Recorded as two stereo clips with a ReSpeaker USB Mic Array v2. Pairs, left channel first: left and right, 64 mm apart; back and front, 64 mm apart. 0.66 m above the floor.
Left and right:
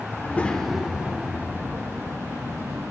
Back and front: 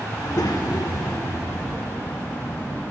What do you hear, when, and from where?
0.1 s a child speaking: 140° left, 0.9 m; by 2.8 s 130° right, 2.5 m